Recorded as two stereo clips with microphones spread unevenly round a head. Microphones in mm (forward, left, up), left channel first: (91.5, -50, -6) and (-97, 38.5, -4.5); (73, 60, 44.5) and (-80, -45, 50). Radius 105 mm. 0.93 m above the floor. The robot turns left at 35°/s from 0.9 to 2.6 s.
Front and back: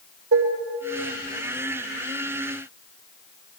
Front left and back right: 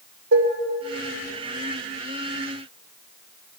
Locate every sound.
0.3 s dishes clattering: 170° right, 2.5 m